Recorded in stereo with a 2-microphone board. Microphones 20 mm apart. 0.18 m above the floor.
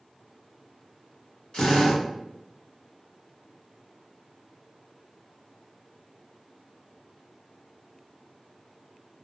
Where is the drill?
50° left (ahead or behind), 2.0 m.